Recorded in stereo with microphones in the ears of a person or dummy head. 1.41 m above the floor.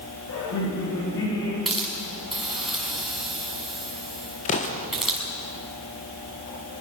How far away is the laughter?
About 7.5 m.